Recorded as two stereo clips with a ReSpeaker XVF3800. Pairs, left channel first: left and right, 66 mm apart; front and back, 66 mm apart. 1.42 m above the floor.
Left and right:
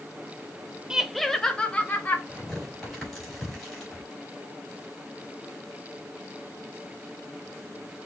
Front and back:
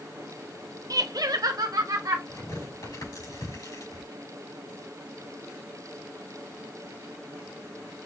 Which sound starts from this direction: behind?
Laughter, at 0.9 s.